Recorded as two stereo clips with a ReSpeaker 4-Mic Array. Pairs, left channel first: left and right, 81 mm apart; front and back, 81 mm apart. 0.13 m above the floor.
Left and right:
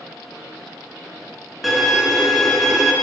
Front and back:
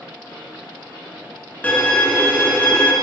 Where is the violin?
Straight ahead, 0.9 m.